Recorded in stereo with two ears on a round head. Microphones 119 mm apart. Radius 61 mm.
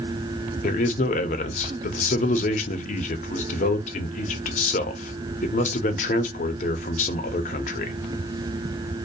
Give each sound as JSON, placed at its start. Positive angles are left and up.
{"t": 0.6, "sound": "a man speaking", "side_deg": 60, "distance_m": 0.6}